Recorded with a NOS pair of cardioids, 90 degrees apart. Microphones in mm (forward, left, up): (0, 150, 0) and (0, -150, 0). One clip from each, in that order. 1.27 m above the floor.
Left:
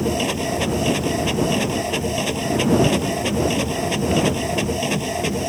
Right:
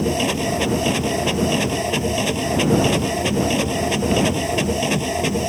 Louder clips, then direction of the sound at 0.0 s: Right 1 dB; 15° right.